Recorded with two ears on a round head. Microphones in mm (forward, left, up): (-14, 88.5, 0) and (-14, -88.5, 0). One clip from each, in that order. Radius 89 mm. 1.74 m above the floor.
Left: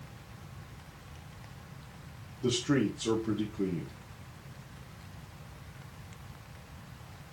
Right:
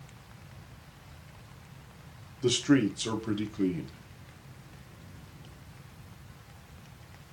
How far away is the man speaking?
About 1.8 m.